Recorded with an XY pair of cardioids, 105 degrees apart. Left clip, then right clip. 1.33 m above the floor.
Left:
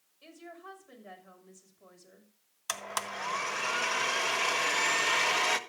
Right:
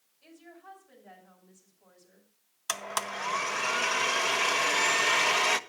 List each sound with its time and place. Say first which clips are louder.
0.2 s a woman speaking: left 3 dB; 55° left, 6.5 m
2.7 s a blender: right 3 dB; 10° right, 0.9 m